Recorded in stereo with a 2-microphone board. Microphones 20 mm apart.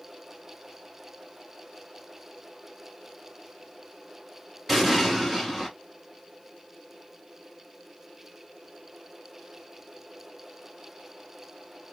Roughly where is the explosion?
Centre.